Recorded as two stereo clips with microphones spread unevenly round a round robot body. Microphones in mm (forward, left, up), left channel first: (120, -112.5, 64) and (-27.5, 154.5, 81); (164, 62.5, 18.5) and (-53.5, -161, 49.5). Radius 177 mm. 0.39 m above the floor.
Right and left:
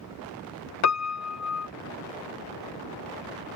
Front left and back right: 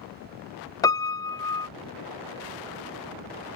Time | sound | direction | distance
0.8 | a piano | 30° right | ?